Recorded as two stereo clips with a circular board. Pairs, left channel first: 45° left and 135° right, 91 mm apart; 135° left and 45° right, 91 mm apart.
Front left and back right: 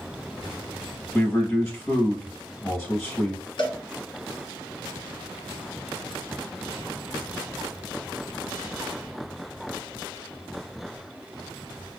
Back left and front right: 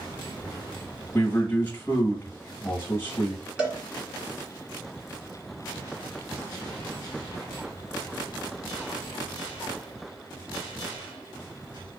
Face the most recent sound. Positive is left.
turn(degrees=30)